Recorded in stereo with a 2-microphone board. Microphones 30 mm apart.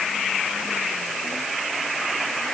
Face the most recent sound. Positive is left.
No sound to turn to.